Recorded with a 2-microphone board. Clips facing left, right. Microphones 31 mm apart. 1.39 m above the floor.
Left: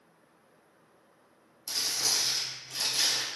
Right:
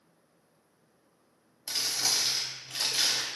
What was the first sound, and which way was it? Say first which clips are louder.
Crumpling: right 1 dB; 45° right (ahead or behind).